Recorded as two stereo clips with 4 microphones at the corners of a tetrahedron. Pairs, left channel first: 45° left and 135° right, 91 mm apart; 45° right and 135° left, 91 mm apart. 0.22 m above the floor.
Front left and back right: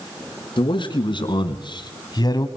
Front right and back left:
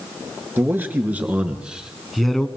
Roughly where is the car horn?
No car horn in this recording.